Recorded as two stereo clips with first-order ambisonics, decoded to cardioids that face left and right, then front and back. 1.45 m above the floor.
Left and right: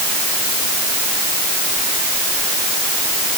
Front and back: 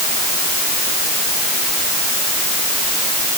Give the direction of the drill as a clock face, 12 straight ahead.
I don't hear a drill.